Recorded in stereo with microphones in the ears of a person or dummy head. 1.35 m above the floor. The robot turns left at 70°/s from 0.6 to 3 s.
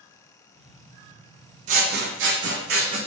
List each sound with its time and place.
1.7 s scissors: 45° right, 0.8 m; by 3.0 s 140° right, 0.8 m